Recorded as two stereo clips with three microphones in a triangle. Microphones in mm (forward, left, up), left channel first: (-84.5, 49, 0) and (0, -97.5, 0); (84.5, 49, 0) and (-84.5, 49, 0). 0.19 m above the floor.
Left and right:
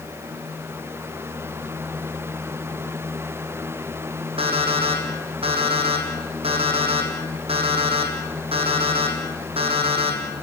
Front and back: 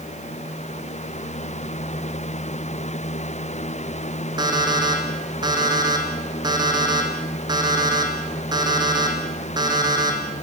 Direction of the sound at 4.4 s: 115° right.